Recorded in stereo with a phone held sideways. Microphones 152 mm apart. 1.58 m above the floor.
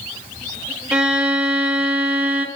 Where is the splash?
I don't hear a splash.